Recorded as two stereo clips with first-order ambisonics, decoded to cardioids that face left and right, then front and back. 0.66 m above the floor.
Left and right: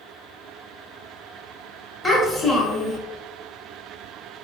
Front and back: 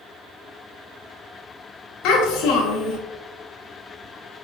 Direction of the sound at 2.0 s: 15° left.